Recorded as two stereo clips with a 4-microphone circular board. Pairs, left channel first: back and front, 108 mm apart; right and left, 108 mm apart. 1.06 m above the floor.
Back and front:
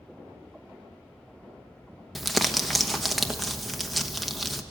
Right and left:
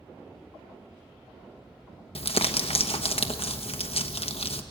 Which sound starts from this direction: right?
Crumpling, at 2.1 s.